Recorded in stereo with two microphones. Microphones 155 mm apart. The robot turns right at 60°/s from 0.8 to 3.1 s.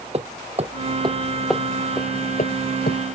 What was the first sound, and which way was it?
Hammering, 40° right (ahead or behind).